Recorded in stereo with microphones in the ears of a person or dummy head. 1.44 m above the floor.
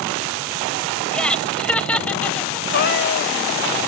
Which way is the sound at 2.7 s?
50° left (ahead or behind).